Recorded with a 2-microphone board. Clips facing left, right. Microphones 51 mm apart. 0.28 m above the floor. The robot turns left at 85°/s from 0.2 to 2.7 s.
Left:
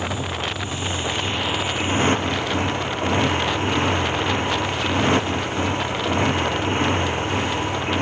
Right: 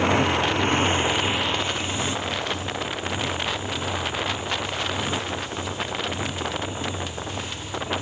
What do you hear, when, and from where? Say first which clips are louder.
0.0 s a motorcycle: right 6 dB; 75° right; by 8.0 s 75° left